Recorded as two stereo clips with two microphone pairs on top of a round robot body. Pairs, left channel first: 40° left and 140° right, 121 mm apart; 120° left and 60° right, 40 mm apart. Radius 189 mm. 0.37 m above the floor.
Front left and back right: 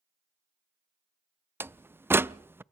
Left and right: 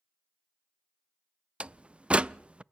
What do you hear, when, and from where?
1.6 s a door slam: 90° right, 0.6 m